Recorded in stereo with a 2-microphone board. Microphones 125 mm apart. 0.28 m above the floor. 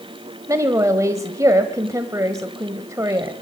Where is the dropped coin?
I don't hear a dropped coin.